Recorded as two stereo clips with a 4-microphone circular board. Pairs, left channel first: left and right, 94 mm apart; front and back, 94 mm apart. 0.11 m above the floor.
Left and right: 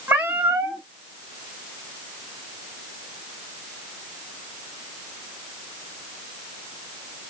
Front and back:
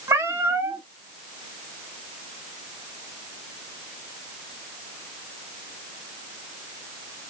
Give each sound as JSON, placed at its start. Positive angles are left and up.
{"t": 0.1, "sound": "a cat meowing", "azimuth_deg": -145, "distance_m": 0.9}